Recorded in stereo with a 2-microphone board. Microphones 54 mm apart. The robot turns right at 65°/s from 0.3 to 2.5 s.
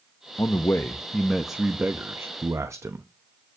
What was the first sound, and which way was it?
A man speaking, 115° left.